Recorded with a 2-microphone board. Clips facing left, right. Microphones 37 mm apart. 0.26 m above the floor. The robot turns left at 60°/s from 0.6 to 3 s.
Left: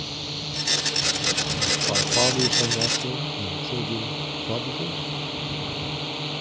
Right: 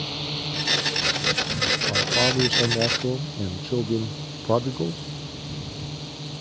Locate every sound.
0.0 s a drone: 170° right; by 6.4 s 45° left
1.9 s a man speaking: 25° left; by 5.0 s 40° right